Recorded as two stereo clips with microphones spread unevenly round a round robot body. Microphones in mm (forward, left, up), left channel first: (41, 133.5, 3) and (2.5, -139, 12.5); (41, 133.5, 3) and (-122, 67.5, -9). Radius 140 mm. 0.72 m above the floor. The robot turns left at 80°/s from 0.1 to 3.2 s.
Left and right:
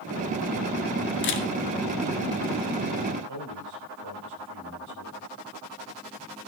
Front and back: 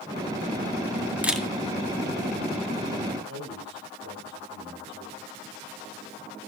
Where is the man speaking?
125° right, 5 m.